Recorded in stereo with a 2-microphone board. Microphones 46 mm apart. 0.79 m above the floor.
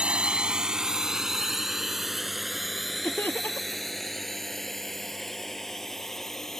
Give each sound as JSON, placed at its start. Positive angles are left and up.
{"t": 0.0, "sound": "a drone", "side_deg": -25}
{"t": 3.0, "sound": "laughter", "side_deg": 50}